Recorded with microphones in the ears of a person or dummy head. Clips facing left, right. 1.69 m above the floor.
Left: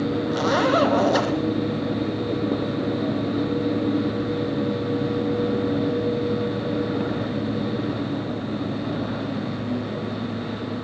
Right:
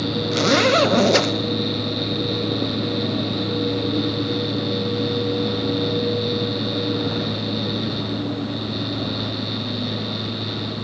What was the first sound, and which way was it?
A zipper, 30° right (ahead or behind).